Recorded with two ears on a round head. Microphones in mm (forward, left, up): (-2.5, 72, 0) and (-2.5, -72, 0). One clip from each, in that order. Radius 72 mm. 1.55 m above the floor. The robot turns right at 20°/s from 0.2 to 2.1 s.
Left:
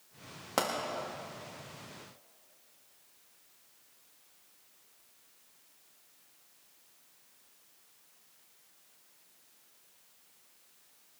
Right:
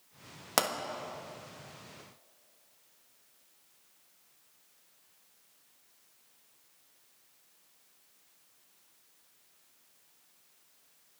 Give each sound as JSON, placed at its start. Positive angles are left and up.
{"t": 0.6, "sound": "a pop", "side_deg": -45, "distance_m": 1.4}